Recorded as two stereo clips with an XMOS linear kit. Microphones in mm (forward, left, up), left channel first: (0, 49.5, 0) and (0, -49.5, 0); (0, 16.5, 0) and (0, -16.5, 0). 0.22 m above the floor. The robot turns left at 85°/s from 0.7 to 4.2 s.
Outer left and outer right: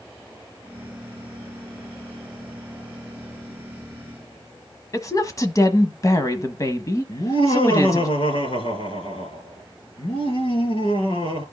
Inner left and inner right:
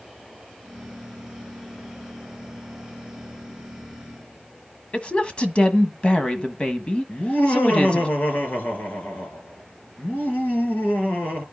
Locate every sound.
4.9 s a woman speaking: 35° left (ahead or behind), 1.3 m
7.1 s laughter: 60° left (ahead or behind), 3 m